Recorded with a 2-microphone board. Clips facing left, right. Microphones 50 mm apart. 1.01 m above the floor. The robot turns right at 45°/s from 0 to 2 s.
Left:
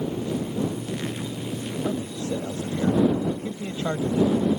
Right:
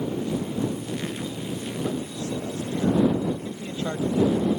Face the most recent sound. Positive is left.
turn(degrees=20)  # may be behind; listen again after turning